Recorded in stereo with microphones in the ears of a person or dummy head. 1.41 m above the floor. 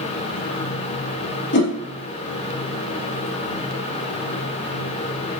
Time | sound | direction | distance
1.5 | a whoosh | 60° left (ahead or behind) | 2 m